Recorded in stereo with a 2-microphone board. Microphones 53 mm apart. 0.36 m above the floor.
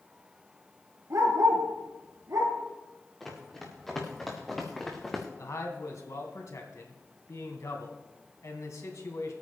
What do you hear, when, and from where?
1.1 s a dog barking: 80° right, 3.5 m
3.2 s running footsteps: 5° left (ahead or behind), 5 m; by 5.3 s 10° left (ahead or behind), 2.5 m
5.4 s a man speaking: 70° left (ahead or behind), 2.5 m